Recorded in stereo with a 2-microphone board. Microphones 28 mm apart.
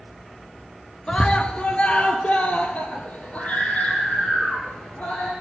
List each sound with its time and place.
1.1 s a scream: 30° left (ahead or behind), 1.6 m; by 5.3 s 60° left (ahead or behind), 7.5 m